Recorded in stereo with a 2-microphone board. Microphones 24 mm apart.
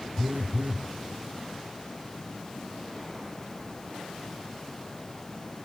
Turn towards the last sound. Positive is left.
turn(degrees=-80)